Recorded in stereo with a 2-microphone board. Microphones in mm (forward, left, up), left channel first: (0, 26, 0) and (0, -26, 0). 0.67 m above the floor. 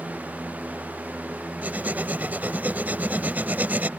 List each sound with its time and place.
1.6 s writing: 35° right (ahead or behind)